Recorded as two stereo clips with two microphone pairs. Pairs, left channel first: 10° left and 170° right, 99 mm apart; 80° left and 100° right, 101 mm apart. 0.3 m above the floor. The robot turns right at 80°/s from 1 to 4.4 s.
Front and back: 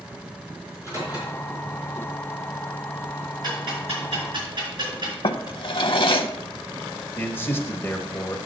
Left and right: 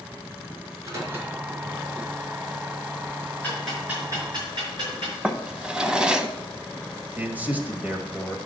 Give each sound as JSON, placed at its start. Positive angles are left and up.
{"t": 0.7, "sound": "a microwave", "azimuth_deg": -45, "distance_m": 4.0}
{"t": 3.4, "sound": "ticking", "azimuth_deg": 150, "distance_m": 5.0}
{"t": 5.2, "sound": "a drawer", "azimuth_deg": -20, "distance_m": 0.6}
{"t": 7.2, "sound": "a man speaking", "azimuth_deg": -40, "distance_m": 1.2}